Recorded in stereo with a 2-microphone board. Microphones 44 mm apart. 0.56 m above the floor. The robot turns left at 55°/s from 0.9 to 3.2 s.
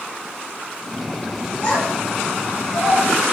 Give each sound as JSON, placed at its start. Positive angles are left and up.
{"t": 1.6, "sound": "a child speaking", "side_deg": 35, "distance_m": 1.2}